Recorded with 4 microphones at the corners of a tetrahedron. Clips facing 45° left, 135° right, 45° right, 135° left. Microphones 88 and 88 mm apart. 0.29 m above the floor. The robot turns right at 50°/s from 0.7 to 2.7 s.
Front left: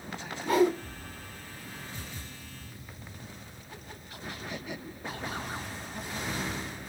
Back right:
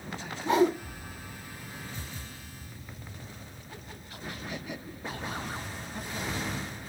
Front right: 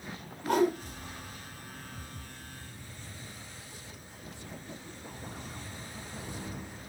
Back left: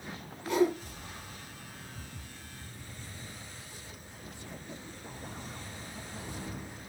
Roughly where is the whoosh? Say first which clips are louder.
Even, front right 1 dB; right.